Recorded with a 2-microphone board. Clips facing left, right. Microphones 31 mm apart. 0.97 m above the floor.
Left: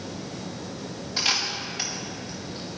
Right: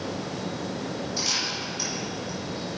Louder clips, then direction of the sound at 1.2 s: Left 4 dB; 70° left (ahead or behind).